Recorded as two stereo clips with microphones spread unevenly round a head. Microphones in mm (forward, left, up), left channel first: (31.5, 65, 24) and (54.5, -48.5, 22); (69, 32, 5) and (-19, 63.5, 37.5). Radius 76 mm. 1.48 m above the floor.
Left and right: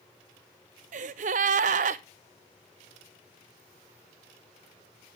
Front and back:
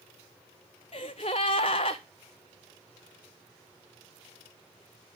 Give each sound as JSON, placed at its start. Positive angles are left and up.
{"t": 0.9, "sound": "a gasp", "azimuth_deg": -85, "distance_m": 0.6}